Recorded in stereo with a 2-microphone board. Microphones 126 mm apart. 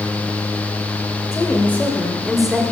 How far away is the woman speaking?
About 2 m.